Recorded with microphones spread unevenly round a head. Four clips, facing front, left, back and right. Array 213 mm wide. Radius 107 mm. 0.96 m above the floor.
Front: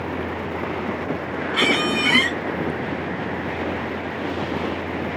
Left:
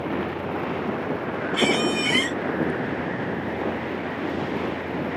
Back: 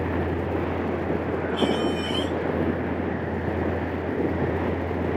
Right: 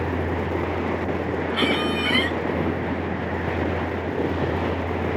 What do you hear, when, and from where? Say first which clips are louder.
0.0 s a fan: right 2 dB, back 1 dB; 130° right
1.5 s a squeak: left 3 dB, front 3 dB; 5° left